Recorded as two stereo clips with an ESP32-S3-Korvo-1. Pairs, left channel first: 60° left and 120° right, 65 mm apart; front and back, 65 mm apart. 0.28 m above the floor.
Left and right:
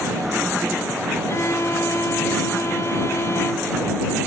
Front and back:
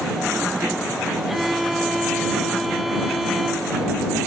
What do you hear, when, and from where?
1.3 s a violin: 95° left